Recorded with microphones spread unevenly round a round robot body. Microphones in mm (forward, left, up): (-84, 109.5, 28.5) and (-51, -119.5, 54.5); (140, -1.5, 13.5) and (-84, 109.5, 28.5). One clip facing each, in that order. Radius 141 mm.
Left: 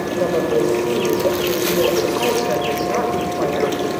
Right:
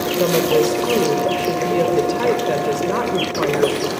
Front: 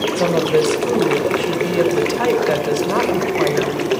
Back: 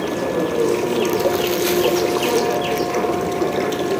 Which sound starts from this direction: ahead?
A woman speaking, at 0.2 s.